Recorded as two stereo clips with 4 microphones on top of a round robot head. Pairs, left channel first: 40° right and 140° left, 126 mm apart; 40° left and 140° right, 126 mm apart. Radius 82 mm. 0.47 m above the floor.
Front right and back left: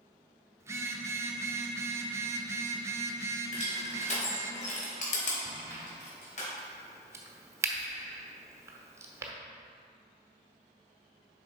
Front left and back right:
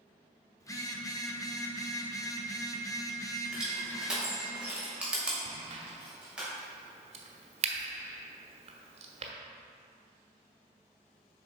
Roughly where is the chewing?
I don't hear chewing.